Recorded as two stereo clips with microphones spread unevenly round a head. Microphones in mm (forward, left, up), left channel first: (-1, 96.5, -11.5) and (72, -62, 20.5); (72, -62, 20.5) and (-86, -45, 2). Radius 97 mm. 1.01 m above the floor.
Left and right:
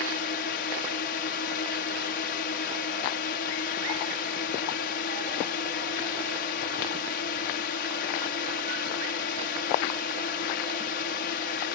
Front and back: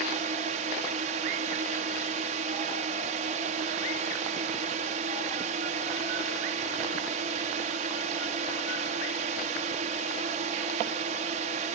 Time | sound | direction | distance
0.0 | a drone | 135° left | ?